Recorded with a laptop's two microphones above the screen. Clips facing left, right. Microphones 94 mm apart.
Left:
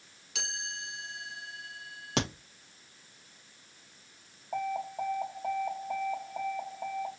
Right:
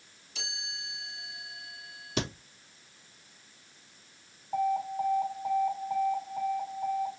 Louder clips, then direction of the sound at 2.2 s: Left 1 dB; 75° left (ahead or behind).